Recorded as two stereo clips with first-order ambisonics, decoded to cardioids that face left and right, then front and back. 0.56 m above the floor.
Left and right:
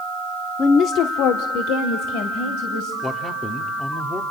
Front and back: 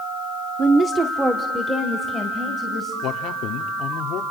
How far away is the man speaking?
About 1.0 m.